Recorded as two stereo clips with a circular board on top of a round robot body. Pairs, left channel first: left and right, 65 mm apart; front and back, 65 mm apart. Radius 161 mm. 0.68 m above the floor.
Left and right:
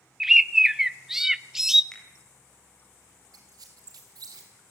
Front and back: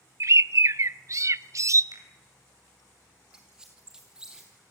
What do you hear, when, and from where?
0.2 s a bird: 170° right, 0.6 m
1.9 s a finger snap: 165° left, 4.5 m
3.3 s a squeak: 100° right, 0.9 m